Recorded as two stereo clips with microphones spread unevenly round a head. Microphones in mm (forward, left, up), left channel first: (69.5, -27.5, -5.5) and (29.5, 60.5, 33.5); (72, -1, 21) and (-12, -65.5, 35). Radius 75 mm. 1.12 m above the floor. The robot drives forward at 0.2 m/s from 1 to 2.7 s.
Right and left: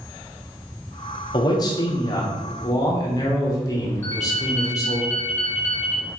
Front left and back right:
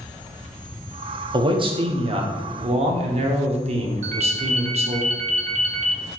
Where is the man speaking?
95° right, 0.8 m; by 5.0 s 115° right, 0.8 m.